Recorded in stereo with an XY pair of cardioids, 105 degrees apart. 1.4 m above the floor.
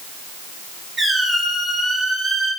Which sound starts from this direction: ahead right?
A squeak, at 1.0 s.